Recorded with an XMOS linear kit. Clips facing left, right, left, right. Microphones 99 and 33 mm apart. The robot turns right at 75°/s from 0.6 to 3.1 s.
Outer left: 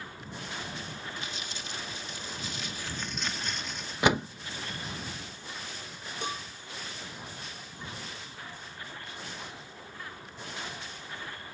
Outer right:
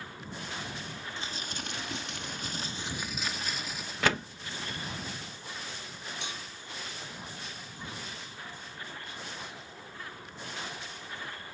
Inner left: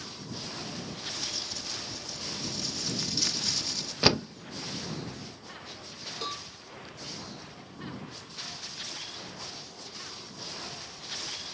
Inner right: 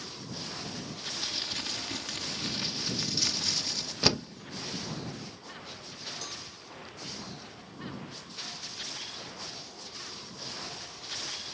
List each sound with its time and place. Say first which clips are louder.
1.2 s crumpling: outer right 1 dB, inner right 2 dB; 150° right; by 3.9 s 5° right
4.0 s a door slam: outer left 4 dB, inner left 3 dB; 15° left (ahead or behind)
6.2 s a cowbell: outer left 9 dB, inner left 5 dB; 45° left (ahead or behind)